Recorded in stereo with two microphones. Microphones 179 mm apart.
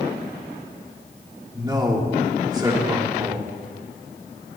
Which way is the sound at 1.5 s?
20° right (ahead or behind).